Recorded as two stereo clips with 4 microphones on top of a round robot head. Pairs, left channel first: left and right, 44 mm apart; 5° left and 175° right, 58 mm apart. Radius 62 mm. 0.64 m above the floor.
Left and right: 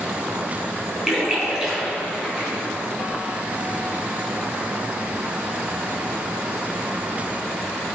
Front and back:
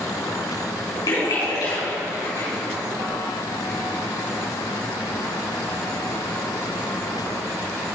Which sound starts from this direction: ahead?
A splash, at 1.1 s.